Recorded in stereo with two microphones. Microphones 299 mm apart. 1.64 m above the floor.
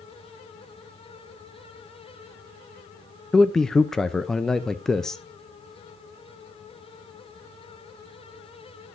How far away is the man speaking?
About 0.5 m.